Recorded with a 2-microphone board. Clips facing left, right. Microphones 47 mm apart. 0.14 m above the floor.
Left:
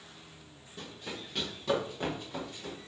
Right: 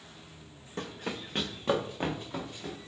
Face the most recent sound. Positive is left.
turn(degrees=-20)  # may be behind; listen again after turning